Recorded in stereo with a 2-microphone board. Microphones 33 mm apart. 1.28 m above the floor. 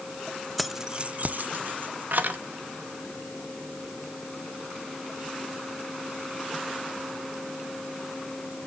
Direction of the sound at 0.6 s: Centre (ahead or behind).